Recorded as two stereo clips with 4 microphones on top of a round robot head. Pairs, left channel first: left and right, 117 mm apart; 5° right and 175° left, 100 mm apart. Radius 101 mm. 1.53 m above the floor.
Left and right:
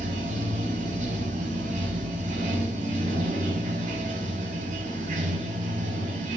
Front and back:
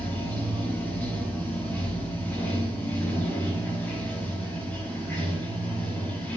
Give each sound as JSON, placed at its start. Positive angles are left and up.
{"t": 0.0, "sound": "running water", "azimuth_deg": -80, "distance_m": 5.0}